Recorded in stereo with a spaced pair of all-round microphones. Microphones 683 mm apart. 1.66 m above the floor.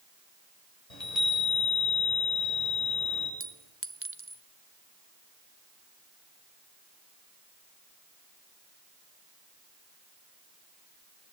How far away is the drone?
No drone in this recording.